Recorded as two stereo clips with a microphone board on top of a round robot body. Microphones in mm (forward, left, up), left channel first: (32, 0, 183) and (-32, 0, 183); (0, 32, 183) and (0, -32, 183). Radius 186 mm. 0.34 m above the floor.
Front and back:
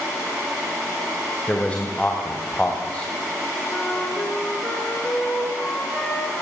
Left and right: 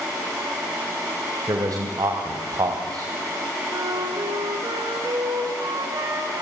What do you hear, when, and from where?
1.5 s a man speaking: 70° right, 2.5 m
3.7 s a flute: 65° right, 3 m